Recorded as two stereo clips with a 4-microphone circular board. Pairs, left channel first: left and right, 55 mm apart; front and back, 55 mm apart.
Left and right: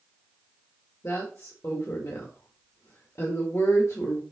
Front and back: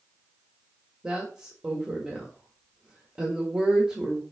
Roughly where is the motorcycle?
No motorcycle in this recording.